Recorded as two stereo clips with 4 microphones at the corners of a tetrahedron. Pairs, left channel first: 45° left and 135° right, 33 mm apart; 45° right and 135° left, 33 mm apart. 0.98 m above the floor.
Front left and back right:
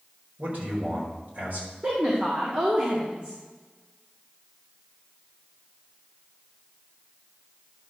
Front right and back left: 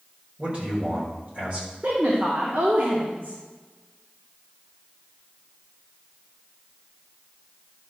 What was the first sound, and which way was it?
A man speaking, straight behind.